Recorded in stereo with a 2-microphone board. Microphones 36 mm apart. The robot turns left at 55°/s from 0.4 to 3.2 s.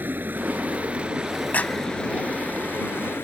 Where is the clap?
50° left (ahead or behind); by 1.9 s 35° left (ahead or behind).